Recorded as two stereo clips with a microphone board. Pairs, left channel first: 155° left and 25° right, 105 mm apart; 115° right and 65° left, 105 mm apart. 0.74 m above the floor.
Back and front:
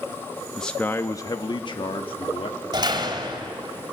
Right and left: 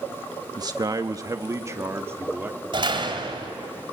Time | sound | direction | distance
0.6 | a man speaking | 70° left | 0.7 m
2.7 | a door slam | 25° left | 2.5 m